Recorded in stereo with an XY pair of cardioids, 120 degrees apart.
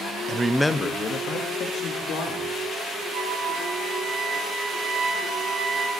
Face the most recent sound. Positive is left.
turn(degrees=-50)